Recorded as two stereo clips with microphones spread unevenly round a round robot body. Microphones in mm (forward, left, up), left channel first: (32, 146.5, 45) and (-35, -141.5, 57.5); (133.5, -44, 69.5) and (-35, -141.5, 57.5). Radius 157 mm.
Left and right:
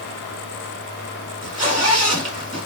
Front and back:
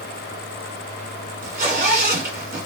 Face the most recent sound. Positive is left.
turn(degrees=-175)